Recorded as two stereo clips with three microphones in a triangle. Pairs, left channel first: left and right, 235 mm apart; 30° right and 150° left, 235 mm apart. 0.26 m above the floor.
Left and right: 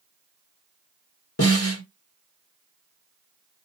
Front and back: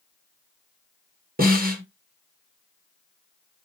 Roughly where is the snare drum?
Left.